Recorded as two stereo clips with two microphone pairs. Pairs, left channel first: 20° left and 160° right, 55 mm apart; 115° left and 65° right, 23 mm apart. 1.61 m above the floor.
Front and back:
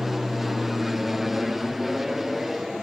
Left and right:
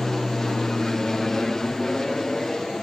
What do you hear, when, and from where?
0.0 s an aircraft: 125° left